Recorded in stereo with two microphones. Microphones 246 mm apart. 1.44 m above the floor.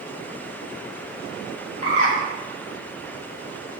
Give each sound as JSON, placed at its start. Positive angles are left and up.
{"t": 1.8, "sound": "a bird", "side_deg": 70, "distance_m": 0.8}